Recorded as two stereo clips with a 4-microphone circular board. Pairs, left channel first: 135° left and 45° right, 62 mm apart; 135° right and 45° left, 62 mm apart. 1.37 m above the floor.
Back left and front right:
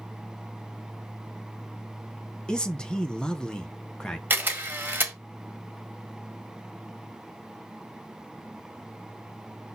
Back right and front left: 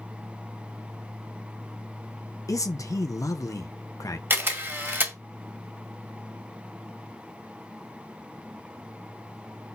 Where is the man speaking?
150° right, 0.9 m.